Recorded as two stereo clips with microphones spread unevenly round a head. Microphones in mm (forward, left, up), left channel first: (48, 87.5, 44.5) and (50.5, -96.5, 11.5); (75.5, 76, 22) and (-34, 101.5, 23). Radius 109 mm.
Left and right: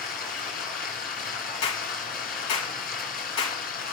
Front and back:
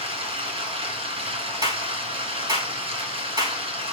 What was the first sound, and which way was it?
Running water, 135° left.